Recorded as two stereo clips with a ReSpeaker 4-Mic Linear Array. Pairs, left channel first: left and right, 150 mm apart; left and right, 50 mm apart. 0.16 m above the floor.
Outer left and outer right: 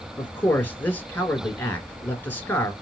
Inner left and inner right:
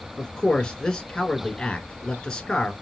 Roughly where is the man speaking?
Centre.